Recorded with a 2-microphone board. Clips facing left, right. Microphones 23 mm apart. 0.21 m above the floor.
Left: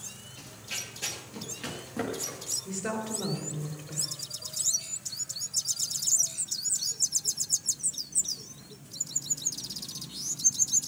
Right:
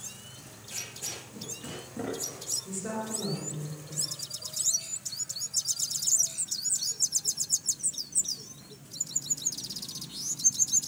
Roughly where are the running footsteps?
Left.